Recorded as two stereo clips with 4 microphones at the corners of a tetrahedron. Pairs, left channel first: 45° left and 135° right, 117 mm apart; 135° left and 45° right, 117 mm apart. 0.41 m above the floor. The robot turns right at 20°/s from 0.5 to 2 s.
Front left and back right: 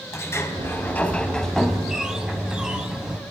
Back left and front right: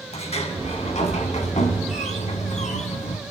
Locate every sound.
0.1 s a sliding door: 110° left, 3 m; by 3.2 s 140° left, 3 m